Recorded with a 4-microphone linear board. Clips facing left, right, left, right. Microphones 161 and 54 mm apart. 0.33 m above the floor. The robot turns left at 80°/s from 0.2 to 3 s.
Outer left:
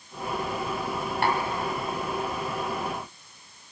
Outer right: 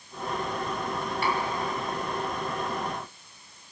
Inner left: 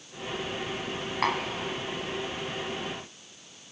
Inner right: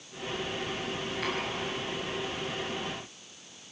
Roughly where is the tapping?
Left.